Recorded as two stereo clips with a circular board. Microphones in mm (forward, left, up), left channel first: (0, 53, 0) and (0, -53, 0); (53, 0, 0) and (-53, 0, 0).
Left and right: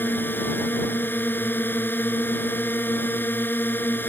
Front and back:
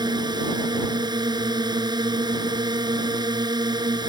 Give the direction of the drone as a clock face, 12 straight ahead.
7 o'clock.